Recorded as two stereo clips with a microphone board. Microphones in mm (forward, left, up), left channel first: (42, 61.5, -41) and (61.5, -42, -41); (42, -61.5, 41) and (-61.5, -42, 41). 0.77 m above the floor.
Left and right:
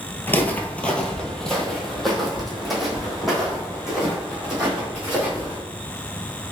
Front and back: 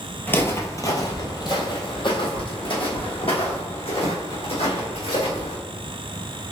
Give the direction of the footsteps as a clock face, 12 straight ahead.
11 o'clock.